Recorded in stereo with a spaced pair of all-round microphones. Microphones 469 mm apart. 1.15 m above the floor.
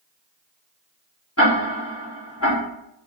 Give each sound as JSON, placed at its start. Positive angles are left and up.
{"t": 1.4, "sound": "ticking", "side_deg": 30, "distance_m": 3.5}